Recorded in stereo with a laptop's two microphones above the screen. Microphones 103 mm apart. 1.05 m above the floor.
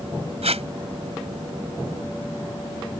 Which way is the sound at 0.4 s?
80° right.